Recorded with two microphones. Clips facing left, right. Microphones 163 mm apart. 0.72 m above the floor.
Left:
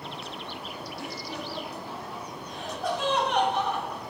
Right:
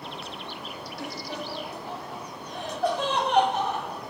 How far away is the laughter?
About 5.5 m.